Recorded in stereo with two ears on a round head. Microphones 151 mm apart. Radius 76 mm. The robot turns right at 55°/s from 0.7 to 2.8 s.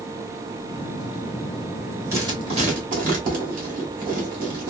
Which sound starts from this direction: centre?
Writing, at 2.1 s.